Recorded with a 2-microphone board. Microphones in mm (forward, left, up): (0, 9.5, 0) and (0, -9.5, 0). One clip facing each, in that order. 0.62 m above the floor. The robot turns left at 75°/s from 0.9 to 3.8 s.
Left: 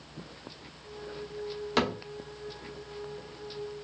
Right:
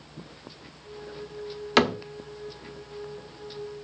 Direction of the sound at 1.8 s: 45° right (ahead or behind).